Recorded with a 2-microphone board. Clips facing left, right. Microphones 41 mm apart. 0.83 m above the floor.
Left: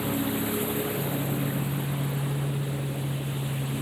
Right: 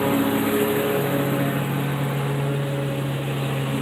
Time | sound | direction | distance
0.0 | a lawn mower | 50° right (ahead or behind) | ?